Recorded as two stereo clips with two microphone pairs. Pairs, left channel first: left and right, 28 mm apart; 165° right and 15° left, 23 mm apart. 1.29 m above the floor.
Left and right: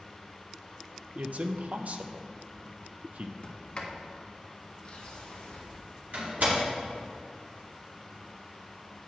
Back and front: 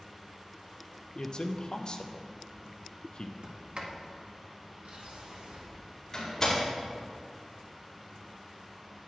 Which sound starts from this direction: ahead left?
A sliding door, at 3.4 s.